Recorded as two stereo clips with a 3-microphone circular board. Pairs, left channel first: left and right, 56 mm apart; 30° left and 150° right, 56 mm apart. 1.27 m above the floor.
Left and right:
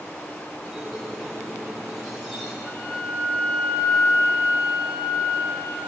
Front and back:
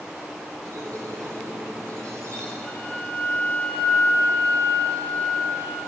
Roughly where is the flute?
Left.